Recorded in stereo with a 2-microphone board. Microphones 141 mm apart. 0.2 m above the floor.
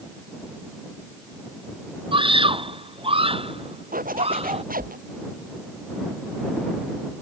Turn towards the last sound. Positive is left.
turn(degrees=-90)